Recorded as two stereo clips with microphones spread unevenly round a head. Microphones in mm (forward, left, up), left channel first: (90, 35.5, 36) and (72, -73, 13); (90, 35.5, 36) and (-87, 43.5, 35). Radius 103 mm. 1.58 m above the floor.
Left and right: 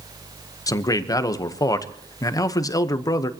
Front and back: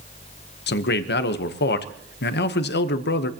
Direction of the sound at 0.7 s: 20° left.